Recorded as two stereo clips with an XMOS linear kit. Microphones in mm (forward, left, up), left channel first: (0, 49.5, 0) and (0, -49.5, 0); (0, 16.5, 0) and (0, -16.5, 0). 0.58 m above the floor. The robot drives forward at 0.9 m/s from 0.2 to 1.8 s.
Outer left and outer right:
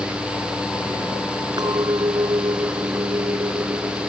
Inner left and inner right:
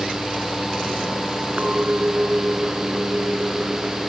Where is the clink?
45° right (ahead or behind).